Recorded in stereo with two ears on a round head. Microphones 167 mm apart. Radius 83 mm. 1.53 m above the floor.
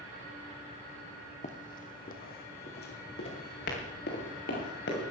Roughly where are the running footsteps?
Left.